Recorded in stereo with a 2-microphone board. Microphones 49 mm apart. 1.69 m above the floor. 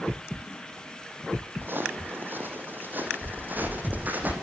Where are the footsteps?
45° right (ahead or behind), 4.5 m; by 4.3 s 40° right (ahead or behind), 5.5 m.